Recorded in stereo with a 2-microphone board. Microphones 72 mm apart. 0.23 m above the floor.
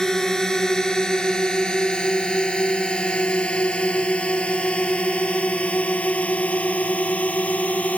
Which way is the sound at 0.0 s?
10° left (ahead or behind).